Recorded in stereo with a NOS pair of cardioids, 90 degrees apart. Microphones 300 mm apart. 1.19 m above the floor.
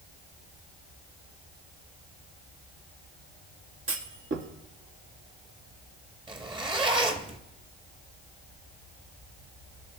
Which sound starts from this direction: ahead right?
A clunk, at 3.9 s.